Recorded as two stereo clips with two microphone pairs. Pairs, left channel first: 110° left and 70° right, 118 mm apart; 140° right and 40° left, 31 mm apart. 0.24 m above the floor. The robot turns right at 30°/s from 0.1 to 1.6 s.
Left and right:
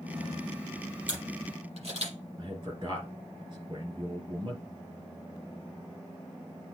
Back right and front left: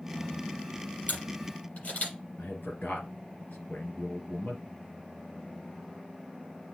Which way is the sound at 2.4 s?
115° right.